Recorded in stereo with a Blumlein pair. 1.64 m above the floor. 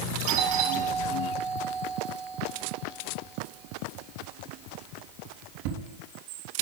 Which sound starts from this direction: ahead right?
A doorbell, at 0.3 s.